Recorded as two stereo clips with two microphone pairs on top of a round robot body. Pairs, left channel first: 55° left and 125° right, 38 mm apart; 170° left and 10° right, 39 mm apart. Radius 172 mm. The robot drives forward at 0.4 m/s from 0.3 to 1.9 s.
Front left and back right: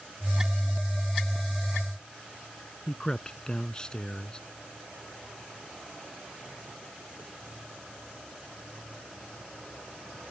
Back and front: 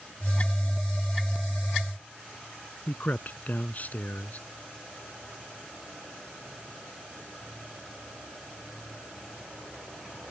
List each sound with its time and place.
2.9 s a man speaking: 125° left